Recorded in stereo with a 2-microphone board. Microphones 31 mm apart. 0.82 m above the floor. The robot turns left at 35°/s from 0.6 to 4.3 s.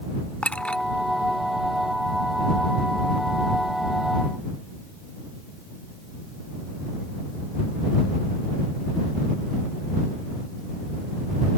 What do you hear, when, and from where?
0.4 s a clink: 40° left (ahead or behind); by 0.8 s 30° left (ahead or behind)